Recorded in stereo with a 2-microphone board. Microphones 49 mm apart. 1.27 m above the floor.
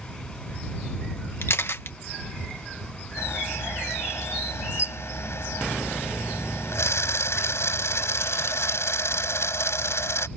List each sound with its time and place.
1.4 s a camera shutter: 60° left (ahead or behind)
3.2 s a camera shutter: 75° left (ahead or behind)